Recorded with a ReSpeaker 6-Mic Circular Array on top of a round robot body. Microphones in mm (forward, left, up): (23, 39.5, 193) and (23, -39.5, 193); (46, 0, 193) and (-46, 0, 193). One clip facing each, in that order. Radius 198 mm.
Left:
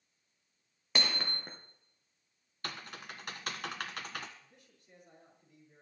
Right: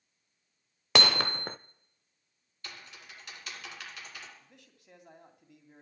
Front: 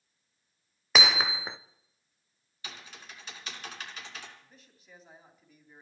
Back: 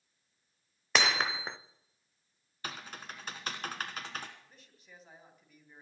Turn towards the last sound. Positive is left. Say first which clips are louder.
# right 3 dB, front 1 dB
turn(degrees=-90)